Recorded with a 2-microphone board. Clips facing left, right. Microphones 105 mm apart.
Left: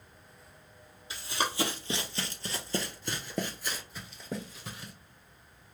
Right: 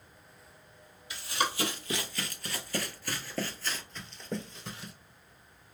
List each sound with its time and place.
1.1 s running footsteps: 30° left (ahead or behind), 1.3 m; by 4.9 s centre (ahead or behind), 1.1 m